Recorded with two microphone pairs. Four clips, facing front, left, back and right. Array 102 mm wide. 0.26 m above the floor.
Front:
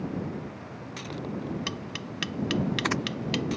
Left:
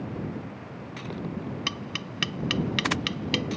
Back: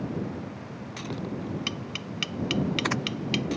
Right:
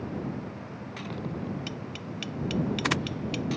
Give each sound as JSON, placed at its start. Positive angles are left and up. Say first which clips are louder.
{"t": 1.7, "sound": "tapping", "louder": "left 2 dB, even", "azimuth_deg": 80}